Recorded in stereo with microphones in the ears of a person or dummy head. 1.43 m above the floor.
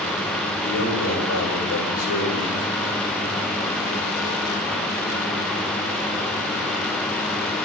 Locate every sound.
0.6 s a man speaking: 65° left (ahead or behind), 5 m; by 2.7 s 45° left (ahead or behind), 4.5 m